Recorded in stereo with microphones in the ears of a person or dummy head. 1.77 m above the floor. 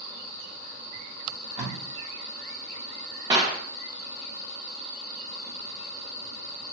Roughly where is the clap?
Right.